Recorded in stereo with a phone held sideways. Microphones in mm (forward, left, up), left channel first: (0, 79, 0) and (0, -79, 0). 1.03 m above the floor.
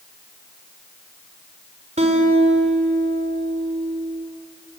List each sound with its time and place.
2.0 s a guitar: 45° right (ahead or behind), 3 m